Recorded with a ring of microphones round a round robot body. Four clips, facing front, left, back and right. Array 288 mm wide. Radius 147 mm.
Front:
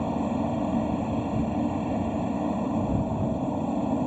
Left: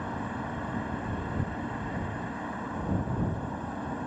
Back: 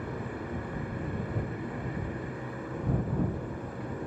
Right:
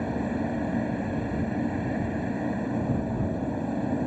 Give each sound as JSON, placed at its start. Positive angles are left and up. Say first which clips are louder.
{"t": 0.0, "sound": "a helicopter", "louder": "right 6 dB, front 10 dB", "azimuth_deg": -30}